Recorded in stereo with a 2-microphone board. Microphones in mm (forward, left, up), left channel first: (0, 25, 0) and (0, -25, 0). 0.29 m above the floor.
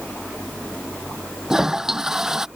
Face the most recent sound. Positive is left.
turn(degrees=-10)  # may be behind; listen again after turning